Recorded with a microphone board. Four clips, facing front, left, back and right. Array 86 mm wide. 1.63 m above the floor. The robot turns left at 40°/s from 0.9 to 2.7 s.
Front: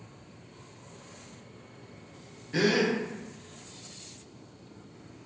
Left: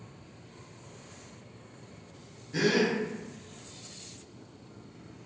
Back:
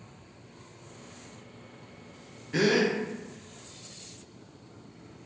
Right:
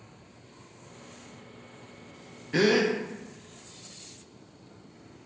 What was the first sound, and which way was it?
A gasp, 100° right.